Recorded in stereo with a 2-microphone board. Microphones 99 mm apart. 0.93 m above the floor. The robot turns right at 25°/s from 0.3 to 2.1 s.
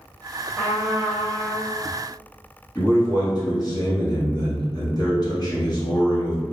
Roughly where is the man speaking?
Left.